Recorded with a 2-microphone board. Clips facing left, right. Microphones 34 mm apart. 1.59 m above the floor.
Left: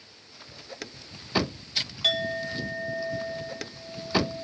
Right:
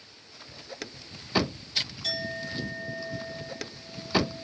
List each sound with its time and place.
2.0 s a clink: 65° left (ahead or behind), 1.9 m